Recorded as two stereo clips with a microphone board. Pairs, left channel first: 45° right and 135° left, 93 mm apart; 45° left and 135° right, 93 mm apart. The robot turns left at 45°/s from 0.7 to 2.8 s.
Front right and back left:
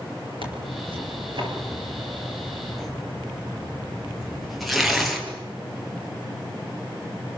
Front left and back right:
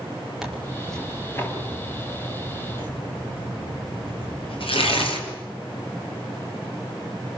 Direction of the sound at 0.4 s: 140° left.